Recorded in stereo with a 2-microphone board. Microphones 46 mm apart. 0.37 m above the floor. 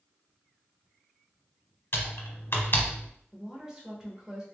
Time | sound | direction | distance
1.9 | typing on a keyboard | 55° left (ahead or behind) | 0.8 m
3.3 | a woman speaking | 20° right (ahead or behind) | 0.8 m